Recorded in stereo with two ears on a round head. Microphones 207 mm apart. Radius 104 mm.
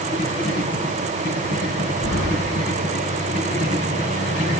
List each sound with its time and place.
2.0 s keys jangling: 60° left (ahead or behind), 7.5 m